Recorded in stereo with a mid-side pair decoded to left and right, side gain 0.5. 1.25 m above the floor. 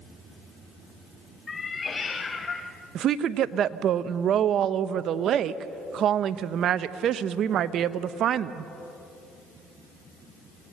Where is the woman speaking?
60° right, 0.8 m.